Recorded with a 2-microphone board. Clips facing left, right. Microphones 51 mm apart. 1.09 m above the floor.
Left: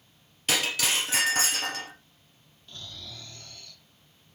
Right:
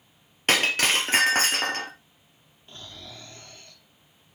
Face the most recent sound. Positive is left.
turn(degrees=-30)  # may be behind; listen again after turning